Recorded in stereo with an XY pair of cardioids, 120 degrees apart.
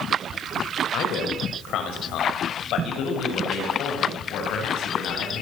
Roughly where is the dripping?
No dripping in this recording.